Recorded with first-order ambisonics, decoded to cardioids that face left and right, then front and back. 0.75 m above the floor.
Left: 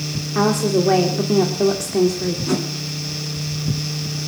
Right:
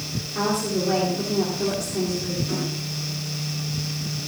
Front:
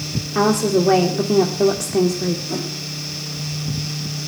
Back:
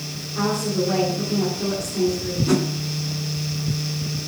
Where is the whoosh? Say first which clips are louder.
Left 5 dB, back 4 dB; 140° left, 3 m.